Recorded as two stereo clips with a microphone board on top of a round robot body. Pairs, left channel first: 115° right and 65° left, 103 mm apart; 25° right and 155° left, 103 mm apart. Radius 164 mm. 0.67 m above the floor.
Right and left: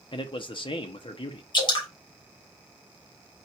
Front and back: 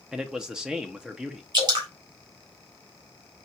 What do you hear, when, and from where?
0.1 s a man speaking: 120° right, 0.8 m
1.5 s dripping: 155° right, 1.8 m